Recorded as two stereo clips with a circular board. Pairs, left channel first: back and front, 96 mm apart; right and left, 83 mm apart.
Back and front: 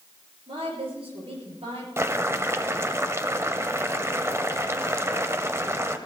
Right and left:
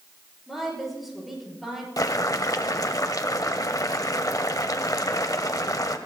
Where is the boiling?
55° right, 0.8 m.